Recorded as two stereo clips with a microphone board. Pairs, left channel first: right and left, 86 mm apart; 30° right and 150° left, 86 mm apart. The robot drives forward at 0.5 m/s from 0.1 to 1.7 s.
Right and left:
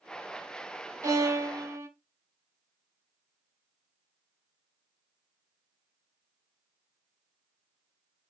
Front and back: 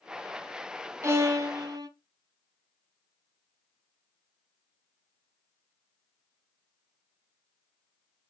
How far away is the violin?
About 1.3 m.